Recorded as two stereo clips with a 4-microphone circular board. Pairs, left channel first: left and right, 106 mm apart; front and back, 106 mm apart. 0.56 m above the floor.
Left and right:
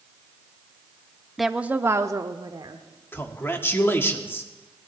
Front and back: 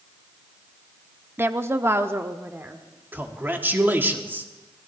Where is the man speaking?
135° left, 1.3 m.